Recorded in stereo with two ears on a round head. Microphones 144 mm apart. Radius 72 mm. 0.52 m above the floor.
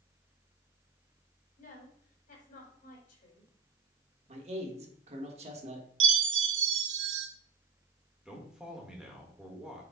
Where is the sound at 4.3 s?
40° right (ahead or behind), 1.4 m.